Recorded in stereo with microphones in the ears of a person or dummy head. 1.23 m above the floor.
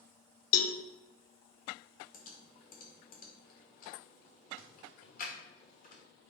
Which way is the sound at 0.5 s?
45° left (ahead or behind).